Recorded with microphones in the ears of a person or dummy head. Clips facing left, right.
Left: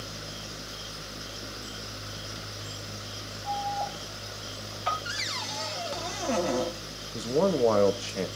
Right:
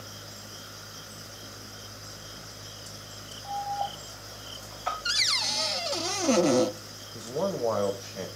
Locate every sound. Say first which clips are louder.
3.4 s an alarm: even; 5° right (ahead or behind), 4.5 m
5.0 s a cupboard door: left 1 dB; 55° right (ahead or behind), 0.5 m
7.1 s a man speaking: left 5 dB; 45° left (ahead or behind), 0.7 m